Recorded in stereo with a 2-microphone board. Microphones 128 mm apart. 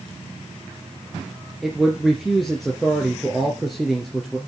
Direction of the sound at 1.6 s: Centre (ahead or behind).